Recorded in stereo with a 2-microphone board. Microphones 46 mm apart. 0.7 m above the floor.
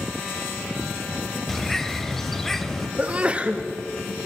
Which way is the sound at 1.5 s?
5° left (ahead or behind).